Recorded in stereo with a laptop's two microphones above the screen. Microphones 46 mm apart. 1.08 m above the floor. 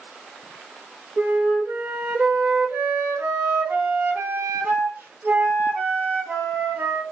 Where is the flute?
40° right (ahead or behind), 0.9 m.